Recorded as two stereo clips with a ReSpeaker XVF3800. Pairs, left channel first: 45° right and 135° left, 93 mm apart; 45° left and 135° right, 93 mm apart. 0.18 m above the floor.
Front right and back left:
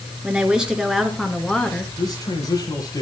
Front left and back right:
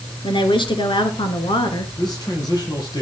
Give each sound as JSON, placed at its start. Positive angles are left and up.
{"t": 0.2, "sound": "a woman speaking", "azimuth_deg": 60, "distance_m": 2.0}
{"t": 2.0, "sound": "a man speaking", "azimuth_deg": 0, "distance_m": 6.0}